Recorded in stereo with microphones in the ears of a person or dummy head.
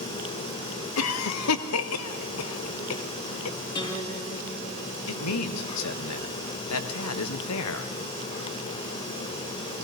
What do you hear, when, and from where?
1.0 s a cough: 75° left (ahead or behind), 0.5 m
3.8 s a guitar: 25° left (ahead or behind), 0.9 m
5.1 s a man speaking: 80° left, 0.7 m